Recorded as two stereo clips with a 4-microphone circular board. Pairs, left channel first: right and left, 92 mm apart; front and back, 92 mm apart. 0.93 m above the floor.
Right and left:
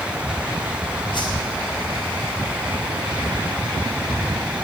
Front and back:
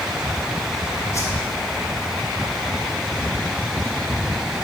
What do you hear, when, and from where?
1.1 s a whoosh: 55° right, 3 m